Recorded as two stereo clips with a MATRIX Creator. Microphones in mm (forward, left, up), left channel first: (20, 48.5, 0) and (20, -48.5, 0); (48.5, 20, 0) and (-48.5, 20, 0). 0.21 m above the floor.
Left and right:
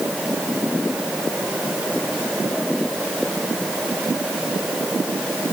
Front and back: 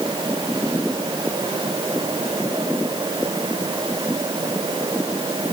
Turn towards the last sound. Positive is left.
No sound to turn to.